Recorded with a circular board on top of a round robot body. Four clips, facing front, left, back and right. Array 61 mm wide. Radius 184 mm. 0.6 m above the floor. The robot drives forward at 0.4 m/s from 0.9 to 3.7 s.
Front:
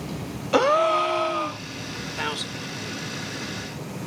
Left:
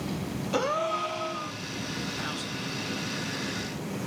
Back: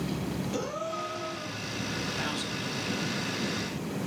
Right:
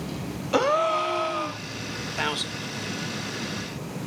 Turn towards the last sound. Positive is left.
turn(degrees=-85)